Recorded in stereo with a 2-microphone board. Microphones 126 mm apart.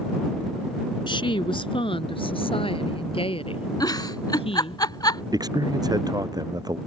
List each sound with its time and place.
1.1 s a woman speaking: 40° left (ahead or behind); by 4.8 s 50° left (ahead or behind)
3.8 s a giggle: 30° left (ahead or behind)
5.3 s a man speaking: 30° right (ahead or behind)